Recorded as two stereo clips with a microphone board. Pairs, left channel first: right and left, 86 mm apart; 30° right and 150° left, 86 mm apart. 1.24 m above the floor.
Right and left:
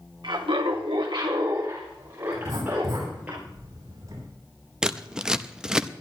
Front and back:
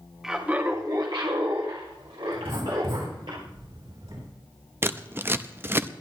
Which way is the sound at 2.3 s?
135° left.